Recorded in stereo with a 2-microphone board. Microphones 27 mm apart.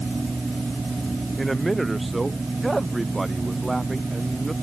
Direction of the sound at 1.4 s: 5° left (ahead or behind).